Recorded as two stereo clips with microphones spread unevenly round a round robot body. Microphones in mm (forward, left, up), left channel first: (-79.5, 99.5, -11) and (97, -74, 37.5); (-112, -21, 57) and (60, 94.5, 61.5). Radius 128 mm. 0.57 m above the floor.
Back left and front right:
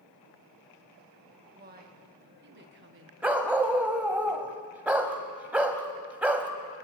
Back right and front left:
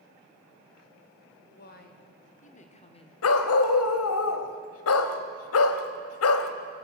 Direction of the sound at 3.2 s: 130° right.